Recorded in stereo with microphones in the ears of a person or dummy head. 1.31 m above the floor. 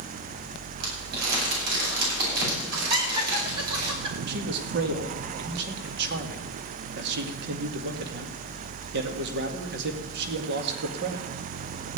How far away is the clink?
I don't hear a clink.